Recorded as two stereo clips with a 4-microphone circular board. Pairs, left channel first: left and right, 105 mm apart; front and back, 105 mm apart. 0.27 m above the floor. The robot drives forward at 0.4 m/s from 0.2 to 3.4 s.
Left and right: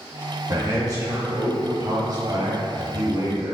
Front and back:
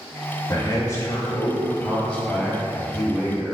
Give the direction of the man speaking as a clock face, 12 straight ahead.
1 o'clock.